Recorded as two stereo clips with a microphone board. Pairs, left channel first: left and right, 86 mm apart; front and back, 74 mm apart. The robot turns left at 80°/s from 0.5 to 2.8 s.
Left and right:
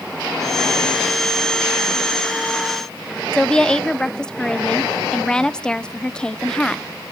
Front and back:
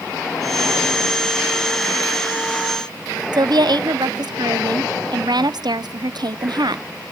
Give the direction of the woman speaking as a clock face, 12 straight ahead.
6 o'clock.